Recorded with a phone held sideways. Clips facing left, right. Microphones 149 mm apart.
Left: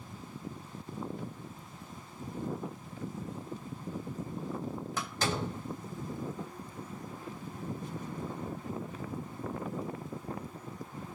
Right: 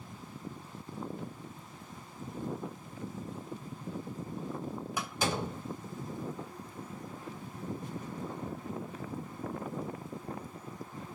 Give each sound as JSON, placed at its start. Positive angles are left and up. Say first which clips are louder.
{"t": 5.0, "sound": "a door slam", "louder": "right 1 dB", "side_deg": -15, "distance_m": 3.0}